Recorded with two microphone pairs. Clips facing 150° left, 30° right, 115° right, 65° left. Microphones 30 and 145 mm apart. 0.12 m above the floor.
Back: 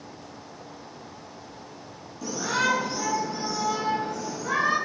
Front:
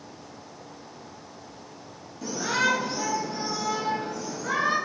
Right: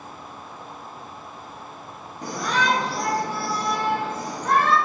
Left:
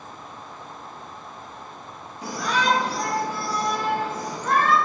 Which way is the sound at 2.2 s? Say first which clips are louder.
Even, even; 90° right.